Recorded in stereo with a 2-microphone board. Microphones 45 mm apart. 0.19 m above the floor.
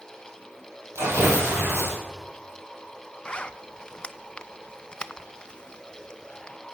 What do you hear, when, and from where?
0.9 s tearing paper: 70° right (ahead or behind), 4.5 m
3.2 s a zipper: 20° left (ahead or behind), 0.5 m